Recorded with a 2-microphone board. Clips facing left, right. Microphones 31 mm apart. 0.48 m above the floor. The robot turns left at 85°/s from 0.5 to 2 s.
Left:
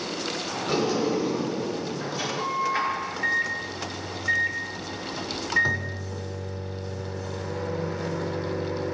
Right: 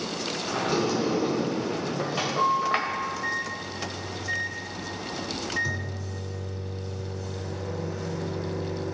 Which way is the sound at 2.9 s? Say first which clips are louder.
Left 3 dB; 35° left (ahead or behind).